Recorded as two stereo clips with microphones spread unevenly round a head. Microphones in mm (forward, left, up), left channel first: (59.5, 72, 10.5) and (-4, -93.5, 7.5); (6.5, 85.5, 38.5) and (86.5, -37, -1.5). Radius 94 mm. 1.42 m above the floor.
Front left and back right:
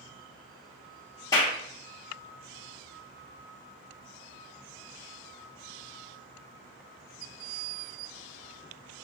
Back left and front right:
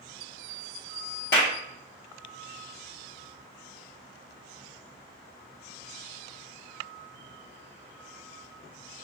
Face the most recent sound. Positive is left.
turn(degrees=140)